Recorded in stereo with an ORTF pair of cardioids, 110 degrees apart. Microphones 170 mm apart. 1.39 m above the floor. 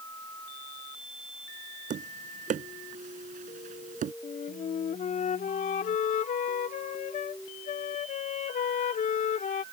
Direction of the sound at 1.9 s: 50° right.